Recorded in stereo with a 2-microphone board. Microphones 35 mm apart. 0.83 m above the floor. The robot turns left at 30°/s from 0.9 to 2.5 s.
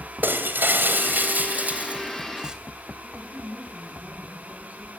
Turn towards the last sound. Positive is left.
turn(degrees=-50)  # may be behind; listen again after turning